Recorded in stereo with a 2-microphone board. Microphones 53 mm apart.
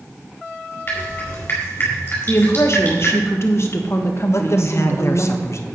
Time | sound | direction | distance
0.9 | dripping | 40° left (ahead or behind) | 4.5 m
2.3 | a woman speaking | 50° left (ahead or behind) | 1.4 m
4.3 | a man speaking | 55° left (ahead or behind) | 0.9 m